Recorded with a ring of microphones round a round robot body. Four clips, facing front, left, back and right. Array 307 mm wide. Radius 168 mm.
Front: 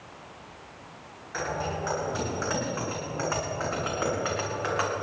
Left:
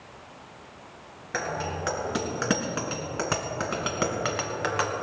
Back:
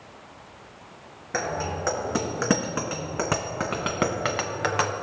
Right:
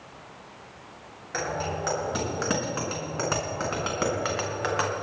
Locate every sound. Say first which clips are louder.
1.3 s a bicycle bell: right 1 dB, back 2 dB; 165° left, 5 m; by 4.9 s straight behind, 2 m